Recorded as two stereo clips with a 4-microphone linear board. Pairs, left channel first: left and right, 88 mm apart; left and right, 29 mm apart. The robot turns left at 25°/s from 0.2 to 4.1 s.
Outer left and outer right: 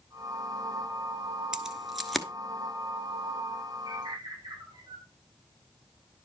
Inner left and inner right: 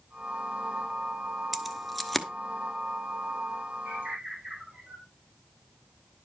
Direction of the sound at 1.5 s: 5° right (ahead or behind).